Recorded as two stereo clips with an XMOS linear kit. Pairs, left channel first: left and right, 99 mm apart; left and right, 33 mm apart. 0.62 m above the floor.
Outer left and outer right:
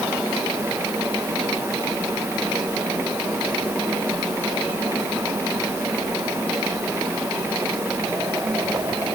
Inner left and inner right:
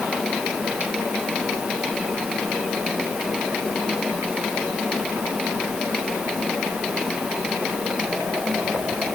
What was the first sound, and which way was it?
Only background noise.